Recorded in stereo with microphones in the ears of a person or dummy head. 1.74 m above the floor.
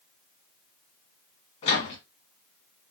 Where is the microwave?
35° left (ahead or behind), 1.5 m.